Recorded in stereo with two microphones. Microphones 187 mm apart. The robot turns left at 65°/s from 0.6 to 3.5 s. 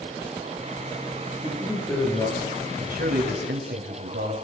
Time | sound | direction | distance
1.4 | a man speaking | 150° right | 7 m
2.8 | a man speaking | 40° right | 3 m